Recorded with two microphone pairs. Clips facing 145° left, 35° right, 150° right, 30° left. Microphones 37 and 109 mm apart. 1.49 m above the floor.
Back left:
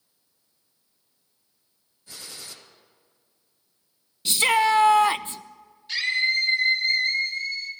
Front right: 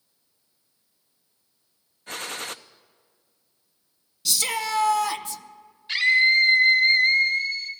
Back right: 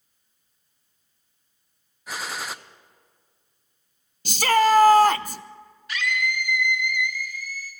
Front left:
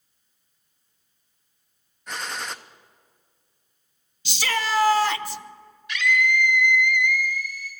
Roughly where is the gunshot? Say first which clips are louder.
Front right 10 dB, even; ahead right.